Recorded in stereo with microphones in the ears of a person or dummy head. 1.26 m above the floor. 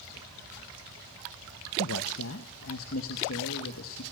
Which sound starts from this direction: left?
A man speaking, at 1.8 s.